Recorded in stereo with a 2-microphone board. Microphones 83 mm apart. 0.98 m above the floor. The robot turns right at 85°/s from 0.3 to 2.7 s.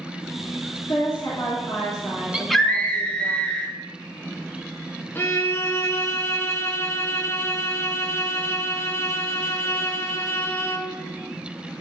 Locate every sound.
0.9 s a woman speaking: 95° left, 2.5 m; by 3.3 s 110° right, 2.5 m
2.3 s a scream: 15° right, 1.4 m; by 3.7 s 15° left, 1.4 m
5.2 s a violin: 25° left (ahead or behind), 1.1 m